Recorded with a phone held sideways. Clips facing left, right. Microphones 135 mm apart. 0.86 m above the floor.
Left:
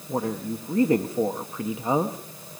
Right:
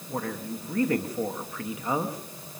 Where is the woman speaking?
25° left (ahead or behind), 1.1 m.